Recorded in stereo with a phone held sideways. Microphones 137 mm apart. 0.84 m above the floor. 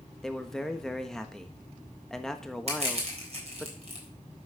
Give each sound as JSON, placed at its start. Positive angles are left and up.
{"t": 0.2, "sound": "a man speaking", "side_deg": 5, "distance_m": 1.2}
{"t": 2.7, "sound": "crushing", "side_deg": -45, "distance_m": 3.5}